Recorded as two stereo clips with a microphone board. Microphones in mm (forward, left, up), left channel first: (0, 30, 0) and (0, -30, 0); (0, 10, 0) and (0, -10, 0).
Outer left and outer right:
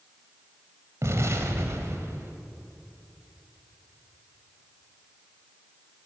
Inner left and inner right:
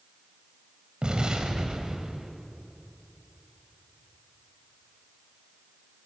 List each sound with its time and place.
1.0 s an explosion: 50° right (ahead or behind), 1.6 m